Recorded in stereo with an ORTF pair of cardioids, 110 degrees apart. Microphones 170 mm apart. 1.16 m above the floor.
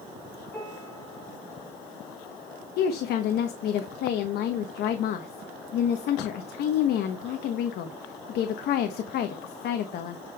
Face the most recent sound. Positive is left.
turn(degrees=70)